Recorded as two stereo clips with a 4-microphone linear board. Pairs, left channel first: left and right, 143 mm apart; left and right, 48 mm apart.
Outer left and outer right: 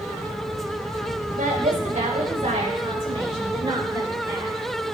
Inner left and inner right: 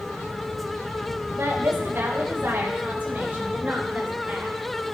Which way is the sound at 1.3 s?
65° right (ahead or behind).